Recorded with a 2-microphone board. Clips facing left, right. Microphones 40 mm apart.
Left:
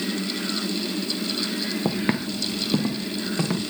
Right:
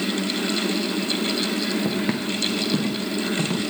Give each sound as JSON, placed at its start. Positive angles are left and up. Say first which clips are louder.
{"t": 1.9, "sound": "footsteps", "louder": "right 1 dB", "side_deg": 25, "distance_m": 1.4}